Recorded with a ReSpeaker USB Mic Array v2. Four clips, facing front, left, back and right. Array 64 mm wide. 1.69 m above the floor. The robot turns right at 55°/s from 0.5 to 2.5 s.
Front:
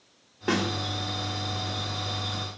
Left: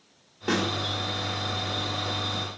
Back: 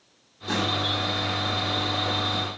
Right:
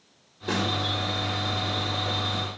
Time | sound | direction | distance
0.5 | a snare drum | 35° left | 3.5 m